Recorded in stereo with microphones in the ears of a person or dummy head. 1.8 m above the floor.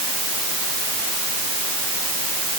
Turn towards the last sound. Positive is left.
No sound to turn to.